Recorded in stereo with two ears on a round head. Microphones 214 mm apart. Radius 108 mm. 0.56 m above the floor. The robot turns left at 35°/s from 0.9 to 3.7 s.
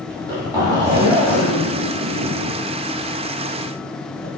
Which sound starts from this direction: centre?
A zipper, at 0.1 s.